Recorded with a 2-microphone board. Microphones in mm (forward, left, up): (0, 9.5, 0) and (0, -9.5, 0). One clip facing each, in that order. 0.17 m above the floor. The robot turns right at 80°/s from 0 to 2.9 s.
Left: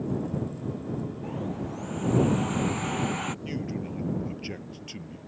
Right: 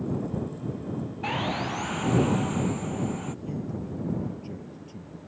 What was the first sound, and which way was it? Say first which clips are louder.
Sawing: right 5 dB; 95° right.